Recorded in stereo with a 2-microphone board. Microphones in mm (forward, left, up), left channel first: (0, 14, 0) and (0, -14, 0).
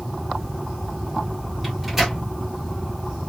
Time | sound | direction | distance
1.6 | a microwave | 10° right (ahead or behind) | 2.0 m